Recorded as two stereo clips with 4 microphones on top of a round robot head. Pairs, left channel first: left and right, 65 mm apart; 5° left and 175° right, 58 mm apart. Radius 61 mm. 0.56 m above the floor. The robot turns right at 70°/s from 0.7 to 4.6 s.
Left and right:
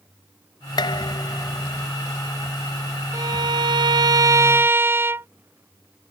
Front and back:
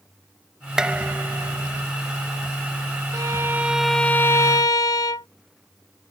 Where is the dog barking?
No dog barking in this recording.